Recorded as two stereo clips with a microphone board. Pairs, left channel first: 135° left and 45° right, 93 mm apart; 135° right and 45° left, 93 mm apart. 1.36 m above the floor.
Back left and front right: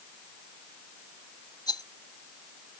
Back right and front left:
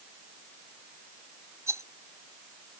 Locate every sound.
1.7 s a rattle: 100° left